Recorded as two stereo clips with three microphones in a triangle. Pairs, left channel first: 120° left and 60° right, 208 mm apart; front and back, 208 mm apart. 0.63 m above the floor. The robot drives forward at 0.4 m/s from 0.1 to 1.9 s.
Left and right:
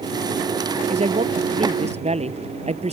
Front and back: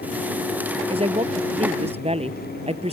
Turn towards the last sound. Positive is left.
turn(degrees=-120)